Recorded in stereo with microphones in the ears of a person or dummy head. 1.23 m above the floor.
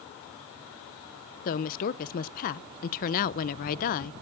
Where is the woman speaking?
35° left (ahead or behind), 0.5 m.